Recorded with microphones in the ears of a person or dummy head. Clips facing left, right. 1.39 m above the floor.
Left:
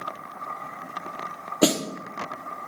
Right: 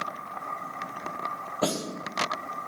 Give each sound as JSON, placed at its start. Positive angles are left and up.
{"t": 1.6, "sound": "a snare drum", "side_deg": 35, "distance_m": 1.0}